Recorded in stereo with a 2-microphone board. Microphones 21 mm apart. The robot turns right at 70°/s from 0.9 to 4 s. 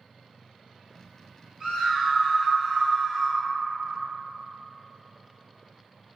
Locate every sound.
1.6 s a scream: 130° right, 2.0 m; by 3.5 s straight ahead, 2.0 m